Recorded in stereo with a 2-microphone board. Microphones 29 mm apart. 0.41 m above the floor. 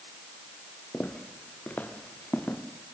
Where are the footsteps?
65° left (ahead or behind), 4 m; by 2.6 s 55° left (ahead or behind), 5 m.